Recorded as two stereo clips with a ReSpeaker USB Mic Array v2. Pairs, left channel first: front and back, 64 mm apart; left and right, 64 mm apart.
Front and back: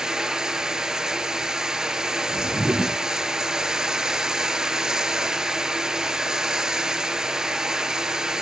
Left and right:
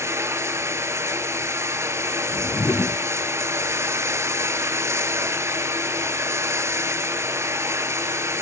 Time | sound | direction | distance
0.0 | running water | 105° right | 0.7 m
2.3 | a whoosh | 130° left | 0.7 m